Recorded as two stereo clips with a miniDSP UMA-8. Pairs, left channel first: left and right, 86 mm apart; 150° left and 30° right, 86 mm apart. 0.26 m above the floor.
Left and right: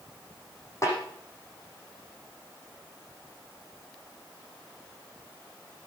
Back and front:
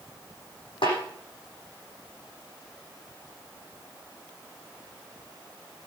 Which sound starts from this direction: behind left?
A snare drum, at 0.8 s.